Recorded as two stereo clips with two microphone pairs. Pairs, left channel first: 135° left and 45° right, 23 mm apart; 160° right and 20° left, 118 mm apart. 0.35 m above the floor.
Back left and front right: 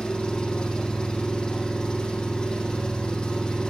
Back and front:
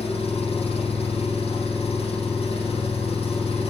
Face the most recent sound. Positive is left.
turn(degrees=175)